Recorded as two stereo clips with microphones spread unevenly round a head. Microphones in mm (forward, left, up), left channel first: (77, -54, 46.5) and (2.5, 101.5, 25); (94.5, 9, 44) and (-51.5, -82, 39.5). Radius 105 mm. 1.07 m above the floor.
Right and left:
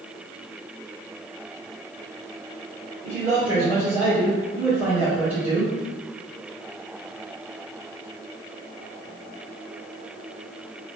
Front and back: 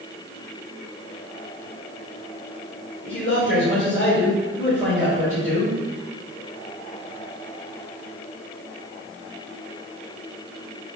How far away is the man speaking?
About 3 m.